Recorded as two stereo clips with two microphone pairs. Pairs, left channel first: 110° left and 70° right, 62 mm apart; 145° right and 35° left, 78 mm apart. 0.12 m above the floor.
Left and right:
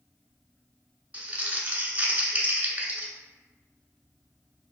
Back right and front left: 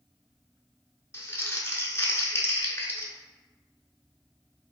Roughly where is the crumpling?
Behind right.